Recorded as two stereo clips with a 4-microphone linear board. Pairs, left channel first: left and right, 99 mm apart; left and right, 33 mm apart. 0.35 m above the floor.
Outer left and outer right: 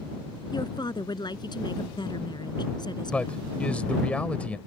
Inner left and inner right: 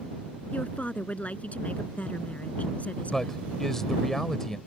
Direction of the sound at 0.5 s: 50° left (ahead or behind).